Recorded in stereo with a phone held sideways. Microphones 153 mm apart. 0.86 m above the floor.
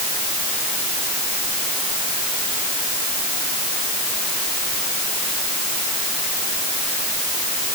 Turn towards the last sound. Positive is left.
No sound to turn to.